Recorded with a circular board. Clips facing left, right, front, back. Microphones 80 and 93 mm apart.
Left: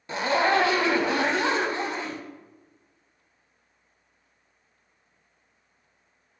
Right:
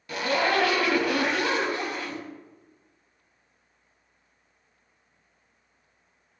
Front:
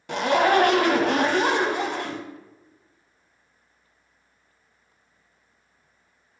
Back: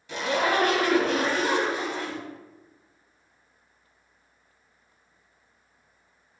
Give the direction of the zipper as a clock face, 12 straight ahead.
11 o'clock.